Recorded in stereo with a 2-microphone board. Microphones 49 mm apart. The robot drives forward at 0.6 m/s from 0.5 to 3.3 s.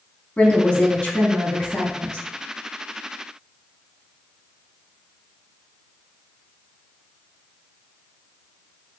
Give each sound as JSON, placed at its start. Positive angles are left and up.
{"t": 0.4, "sound": "a woman speaking", "side_deg": 25, "distance_m": 1.0}